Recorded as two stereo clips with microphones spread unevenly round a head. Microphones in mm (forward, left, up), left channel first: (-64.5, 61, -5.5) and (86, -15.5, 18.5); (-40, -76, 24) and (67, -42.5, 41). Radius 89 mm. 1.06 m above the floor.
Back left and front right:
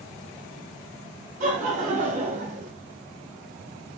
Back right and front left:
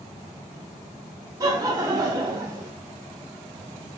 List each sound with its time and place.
1.4 s laughter: 30° right, 0.6 m